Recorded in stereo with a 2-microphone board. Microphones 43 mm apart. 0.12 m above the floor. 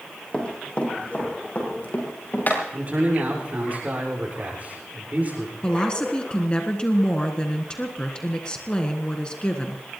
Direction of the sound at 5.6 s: 20° left (ahead or behind).